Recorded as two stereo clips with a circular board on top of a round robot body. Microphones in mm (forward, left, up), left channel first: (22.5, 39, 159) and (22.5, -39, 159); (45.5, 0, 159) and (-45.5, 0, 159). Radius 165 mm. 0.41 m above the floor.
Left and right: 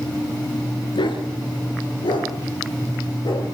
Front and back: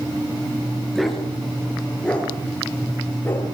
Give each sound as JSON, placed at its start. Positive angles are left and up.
{"t": 0.9, "sound": "a dog barking", "azimuth_deg": 90, "distance_m": 4.0}